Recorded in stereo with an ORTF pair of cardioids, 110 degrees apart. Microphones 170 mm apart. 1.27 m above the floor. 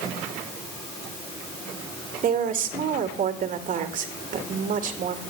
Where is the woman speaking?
55° right, 2.5 m.